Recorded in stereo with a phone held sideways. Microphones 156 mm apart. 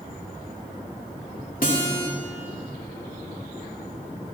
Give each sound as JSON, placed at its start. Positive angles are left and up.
{"t": 1.6, "sound": "a guitar", "side_deg": 65, "distance_m": 2.5}